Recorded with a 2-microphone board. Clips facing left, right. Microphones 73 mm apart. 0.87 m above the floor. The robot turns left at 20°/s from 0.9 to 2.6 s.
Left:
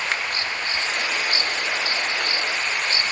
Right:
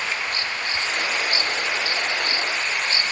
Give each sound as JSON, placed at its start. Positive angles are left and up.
{"t": 0.1, "sound": "a finger snap", "side_deg": 65}